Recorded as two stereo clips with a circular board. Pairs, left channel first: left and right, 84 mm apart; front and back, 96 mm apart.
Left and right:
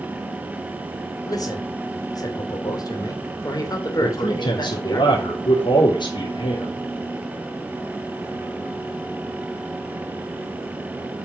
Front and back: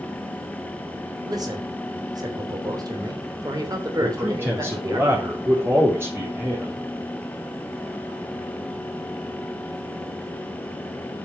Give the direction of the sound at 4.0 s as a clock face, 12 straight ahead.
8 o'clock.